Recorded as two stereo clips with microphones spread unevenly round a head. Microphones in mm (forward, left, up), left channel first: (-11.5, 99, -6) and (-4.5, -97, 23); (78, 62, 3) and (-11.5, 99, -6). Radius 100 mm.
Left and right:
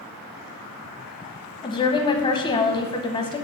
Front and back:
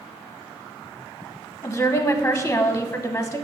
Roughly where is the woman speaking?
Ahead left.